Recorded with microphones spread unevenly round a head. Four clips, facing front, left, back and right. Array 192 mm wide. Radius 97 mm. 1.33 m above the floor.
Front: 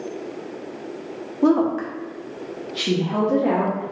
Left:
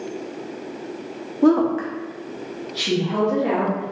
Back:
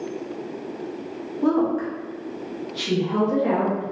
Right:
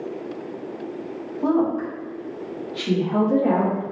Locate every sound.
1.4 s a woman speaking: 60° left, 0.8 m; by 3.8 s 25° right, 1.1 m